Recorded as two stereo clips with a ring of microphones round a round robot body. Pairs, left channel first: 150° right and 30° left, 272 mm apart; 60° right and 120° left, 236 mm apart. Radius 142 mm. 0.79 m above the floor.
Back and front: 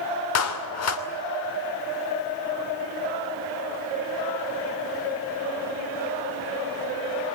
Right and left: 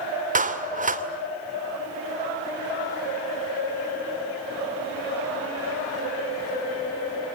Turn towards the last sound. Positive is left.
turn(degrees=175)